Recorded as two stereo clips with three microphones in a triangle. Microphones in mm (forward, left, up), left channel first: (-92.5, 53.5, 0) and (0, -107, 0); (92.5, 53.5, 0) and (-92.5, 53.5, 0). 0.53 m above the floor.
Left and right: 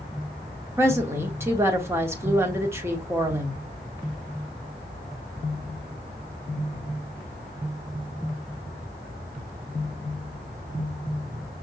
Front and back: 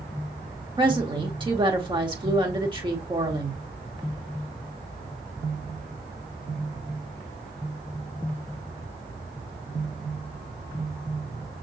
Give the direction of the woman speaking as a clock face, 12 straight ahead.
4 o'clock.